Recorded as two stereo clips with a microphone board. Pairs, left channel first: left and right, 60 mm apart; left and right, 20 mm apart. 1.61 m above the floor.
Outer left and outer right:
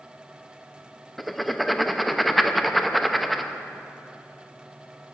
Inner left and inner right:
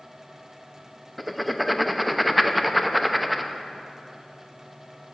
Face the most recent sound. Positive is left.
turn(degrees=0)  # may be behind; listen again after turning